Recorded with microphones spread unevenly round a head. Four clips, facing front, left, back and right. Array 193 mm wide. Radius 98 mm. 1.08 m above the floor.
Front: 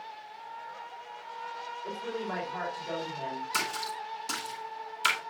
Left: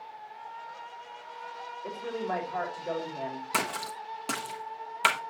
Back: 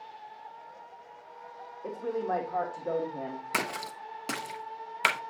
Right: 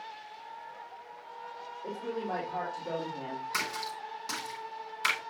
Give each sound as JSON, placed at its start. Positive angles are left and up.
{"t": 1.8, "sound": "a woman speaking", "azimuth_deg": -170, "distance_m": 3.5}
{"t": 3.5, "sound": "a splash", "azimuth_deg": 130, "distance_m": 0.7}